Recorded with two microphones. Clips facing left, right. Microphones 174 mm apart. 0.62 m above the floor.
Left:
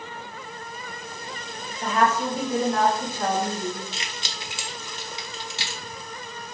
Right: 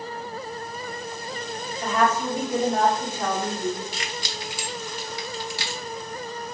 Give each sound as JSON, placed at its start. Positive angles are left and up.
{"t": 1.8, "sound": "a woman speaking", "side_deg": 5, "distance_m": 1.7}
{"t": 3.9, "sound": "keys jangling", "side_deg": 25, "distance_m": 0.6}